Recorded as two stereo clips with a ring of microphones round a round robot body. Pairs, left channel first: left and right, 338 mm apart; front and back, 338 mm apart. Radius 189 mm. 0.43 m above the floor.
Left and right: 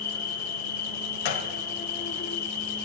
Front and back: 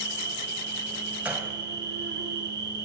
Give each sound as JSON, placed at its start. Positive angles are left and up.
{"t": 0.0, "sound": "an insect", "azimuth_deg": 140, "distance_m": 2.0}
{"t": 1.2, "sound": "a gunshot", "azimuth_deg": 95, "distance_m": 1.9}